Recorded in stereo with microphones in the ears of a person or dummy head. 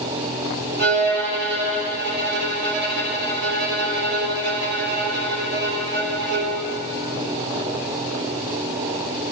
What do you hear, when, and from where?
0.8 s a violin: 55° right (ahead or behind), 3.5 m